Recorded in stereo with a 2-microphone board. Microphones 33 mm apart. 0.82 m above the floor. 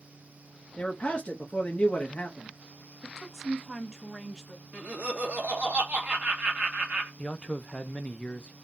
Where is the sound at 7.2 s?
35° left (ahead or behind), 0.7 m.